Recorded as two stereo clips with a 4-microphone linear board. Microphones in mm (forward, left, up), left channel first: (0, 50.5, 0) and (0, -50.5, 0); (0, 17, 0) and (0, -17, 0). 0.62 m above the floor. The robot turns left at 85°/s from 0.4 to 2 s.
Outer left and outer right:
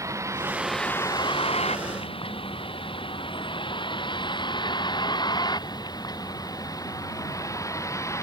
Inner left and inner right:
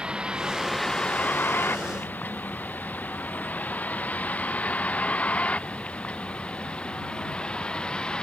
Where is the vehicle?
30° right (ahead or behind); by 8.2 s 30° left (ahead or behind).